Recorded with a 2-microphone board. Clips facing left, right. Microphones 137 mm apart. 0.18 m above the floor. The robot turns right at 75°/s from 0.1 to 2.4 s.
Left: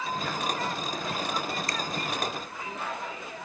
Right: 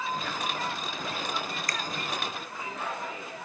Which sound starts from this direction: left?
A finger snap, at 1.7 s.